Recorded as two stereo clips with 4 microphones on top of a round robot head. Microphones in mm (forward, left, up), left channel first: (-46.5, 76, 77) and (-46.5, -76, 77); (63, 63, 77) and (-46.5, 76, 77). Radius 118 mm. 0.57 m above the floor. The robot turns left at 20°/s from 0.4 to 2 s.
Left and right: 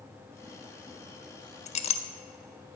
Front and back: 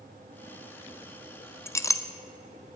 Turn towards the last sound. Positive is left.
turn(degrees=50)